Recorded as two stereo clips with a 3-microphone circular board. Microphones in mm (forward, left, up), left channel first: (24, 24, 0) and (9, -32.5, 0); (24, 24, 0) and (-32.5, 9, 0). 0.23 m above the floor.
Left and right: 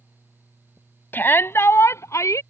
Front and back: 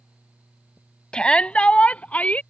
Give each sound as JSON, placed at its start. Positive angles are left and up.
{"t": 1.1, "sound": "a shout", "azimuth_deg": 75}